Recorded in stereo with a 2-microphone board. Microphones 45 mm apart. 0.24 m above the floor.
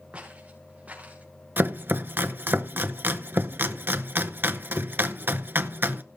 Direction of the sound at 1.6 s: 50° right (ahead or behind).